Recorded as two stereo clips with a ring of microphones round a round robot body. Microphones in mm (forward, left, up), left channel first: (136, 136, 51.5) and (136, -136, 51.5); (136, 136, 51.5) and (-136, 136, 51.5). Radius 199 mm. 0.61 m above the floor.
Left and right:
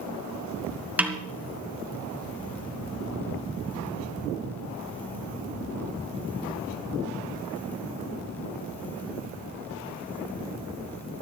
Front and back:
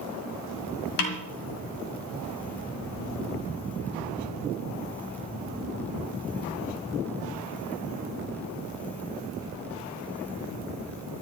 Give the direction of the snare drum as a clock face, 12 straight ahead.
12 o'clock.